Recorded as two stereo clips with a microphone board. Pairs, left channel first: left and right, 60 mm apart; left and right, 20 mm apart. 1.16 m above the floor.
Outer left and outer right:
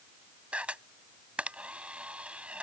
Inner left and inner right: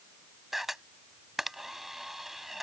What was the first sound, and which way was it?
A camera shutter, 20° right (ahead or behind).